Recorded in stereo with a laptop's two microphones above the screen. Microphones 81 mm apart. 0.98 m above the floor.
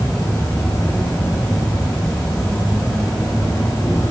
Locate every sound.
0.0 s an insect: 50° left (ahead or behind), 3 m